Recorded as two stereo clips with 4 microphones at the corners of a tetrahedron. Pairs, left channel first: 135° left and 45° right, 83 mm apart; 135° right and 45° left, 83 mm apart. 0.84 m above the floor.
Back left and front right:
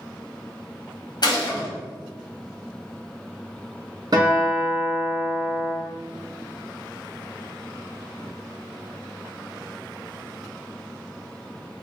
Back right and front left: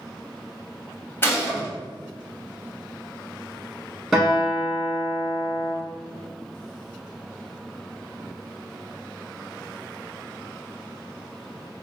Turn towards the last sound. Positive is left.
turn(degrees=-40)